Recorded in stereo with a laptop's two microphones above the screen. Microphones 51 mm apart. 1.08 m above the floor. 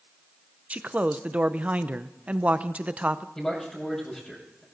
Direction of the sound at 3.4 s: 20° left (ahead or behind).